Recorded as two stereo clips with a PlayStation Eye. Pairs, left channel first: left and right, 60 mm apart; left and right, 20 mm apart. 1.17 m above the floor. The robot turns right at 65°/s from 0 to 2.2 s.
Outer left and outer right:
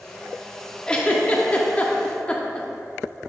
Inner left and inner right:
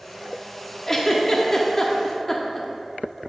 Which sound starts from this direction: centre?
A giggle, at 0.9 s.